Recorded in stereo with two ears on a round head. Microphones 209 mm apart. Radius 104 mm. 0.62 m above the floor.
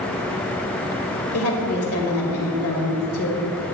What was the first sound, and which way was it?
A woman speaking, 70° left (ahead or behind).